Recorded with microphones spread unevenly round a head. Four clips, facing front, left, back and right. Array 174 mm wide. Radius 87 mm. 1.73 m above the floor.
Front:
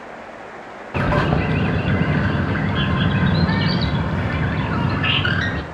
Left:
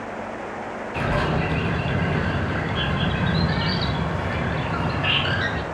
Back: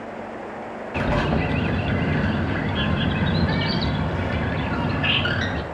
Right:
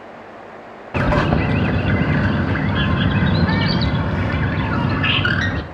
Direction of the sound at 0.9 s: 55° right.